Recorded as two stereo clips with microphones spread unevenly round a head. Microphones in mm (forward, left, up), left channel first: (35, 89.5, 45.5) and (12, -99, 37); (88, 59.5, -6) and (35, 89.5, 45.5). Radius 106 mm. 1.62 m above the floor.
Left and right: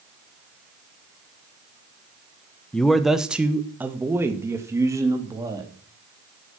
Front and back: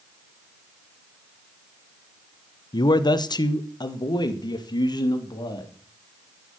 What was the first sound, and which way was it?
A man speaking, straight ahead.